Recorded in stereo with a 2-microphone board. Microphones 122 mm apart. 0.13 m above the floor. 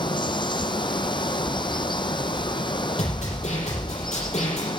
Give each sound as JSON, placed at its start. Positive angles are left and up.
{"t": 0.0, "sound": "running water", "side_deg": 40, "distance_m": 0.8}
{"t": 3.0, "sound": "a snare drum", "side_deg": 65, "distance_m": 5.0}